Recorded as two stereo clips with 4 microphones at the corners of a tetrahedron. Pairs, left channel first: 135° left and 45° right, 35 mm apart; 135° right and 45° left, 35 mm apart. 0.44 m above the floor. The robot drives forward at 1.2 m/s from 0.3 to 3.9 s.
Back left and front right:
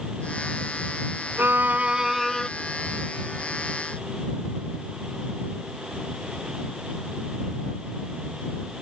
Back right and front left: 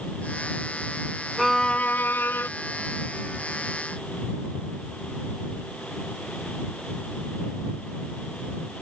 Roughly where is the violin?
Ahead right.